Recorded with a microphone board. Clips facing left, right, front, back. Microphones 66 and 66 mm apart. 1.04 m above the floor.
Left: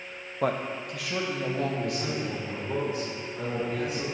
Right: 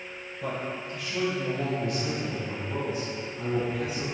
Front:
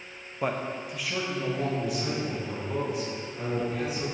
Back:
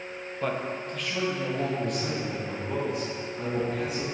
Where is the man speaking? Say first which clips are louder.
Left 5 dB, even; 75° left, 0.5 m; by 4.0 s 85° left, 4.5 m.